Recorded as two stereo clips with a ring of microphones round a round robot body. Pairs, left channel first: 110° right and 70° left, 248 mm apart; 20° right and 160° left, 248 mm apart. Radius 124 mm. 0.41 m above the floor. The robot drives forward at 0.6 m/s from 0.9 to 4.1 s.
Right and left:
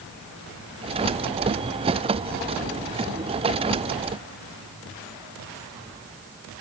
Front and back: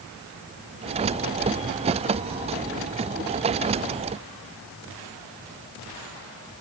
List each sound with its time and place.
Only background noise.